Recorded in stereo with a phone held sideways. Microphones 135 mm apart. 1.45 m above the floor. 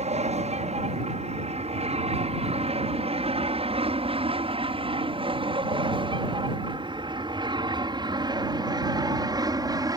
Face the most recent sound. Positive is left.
turn(degrees=-30)  # may be behind; listen again after turning